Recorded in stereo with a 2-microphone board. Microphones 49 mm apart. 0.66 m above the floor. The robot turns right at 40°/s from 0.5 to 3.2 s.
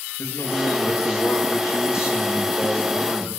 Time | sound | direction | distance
0.2 | a man speaking | 60° left | 8 m